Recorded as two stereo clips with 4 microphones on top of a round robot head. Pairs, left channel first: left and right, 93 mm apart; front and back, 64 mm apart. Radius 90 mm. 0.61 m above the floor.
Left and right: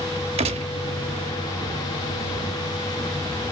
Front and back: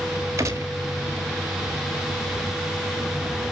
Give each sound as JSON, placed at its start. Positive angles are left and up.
{"t": 0.4, "sound": "a gunshot", "azimuth_deg": -120, "distance_m": 0.6}